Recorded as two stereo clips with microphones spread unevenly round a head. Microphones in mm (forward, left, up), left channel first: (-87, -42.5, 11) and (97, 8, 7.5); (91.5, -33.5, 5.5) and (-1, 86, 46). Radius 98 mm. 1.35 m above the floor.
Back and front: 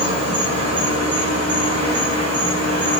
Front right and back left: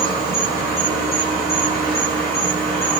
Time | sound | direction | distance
0.0 | an insect | 60° left | 1.3 m